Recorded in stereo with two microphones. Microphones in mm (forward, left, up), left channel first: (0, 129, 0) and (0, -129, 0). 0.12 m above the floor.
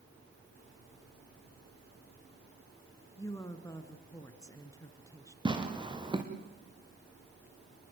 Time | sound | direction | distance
3.2 | a woman speaking | 15° left (ahead or behind) | 1.6 m
5.5 | tearing paper | 15° right (ahead or behind) | 3 m